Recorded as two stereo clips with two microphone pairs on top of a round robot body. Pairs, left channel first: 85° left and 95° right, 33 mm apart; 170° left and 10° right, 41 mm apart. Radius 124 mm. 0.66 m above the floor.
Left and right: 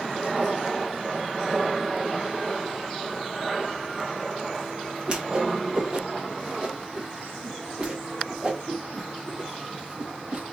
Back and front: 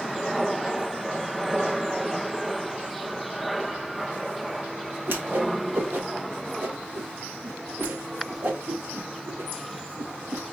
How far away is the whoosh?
About 1.4 m.